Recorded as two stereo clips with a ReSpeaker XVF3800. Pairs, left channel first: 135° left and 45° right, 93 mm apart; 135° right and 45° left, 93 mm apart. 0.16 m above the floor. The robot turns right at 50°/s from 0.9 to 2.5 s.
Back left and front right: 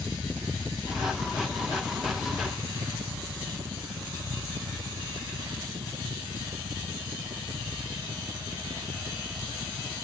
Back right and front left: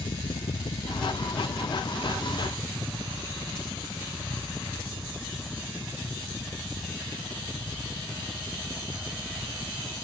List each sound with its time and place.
0.0 s a helicopter: 125° right; by 10.1 s 45° right